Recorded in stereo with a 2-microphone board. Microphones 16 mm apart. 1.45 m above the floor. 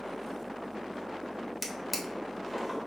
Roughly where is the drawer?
Centre.